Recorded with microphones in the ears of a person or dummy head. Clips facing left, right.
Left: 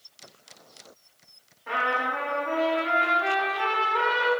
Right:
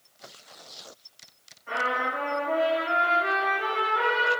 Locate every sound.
1.7 s a trumpet: 80° left, 1.3 m